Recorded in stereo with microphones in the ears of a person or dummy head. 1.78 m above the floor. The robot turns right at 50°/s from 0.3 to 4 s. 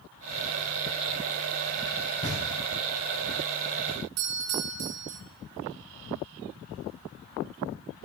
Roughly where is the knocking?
Left.